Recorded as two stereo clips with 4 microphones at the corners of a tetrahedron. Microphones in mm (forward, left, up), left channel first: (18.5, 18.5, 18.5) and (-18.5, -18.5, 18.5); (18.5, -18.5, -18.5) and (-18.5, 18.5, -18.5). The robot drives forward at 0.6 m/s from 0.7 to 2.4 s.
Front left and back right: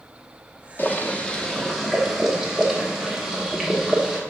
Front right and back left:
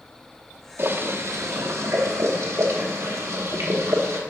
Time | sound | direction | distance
0.8 | boiling | 90° left | 0.9 m